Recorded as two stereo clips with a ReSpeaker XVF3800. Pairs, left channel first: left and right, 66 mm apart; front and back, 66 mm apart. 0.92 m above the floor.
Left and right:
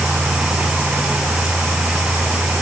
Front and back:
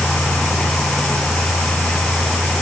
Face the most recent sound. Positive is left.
No sound to turn to.